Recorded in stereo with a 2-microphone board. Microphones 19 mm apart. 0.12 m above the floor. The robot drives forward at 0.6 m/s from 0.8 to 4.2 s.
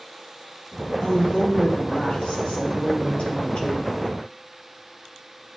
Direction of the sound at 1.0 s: 60° left (ahead or behind).